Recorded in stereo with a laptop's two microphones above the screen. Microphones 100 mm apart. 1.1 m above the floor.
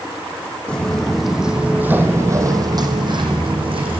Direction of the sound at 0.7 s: 10° left (ahead or behind).